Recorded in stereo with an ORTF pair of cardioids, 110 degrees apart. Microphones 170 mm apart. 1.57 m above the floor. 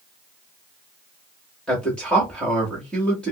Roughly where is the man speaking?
Ahead.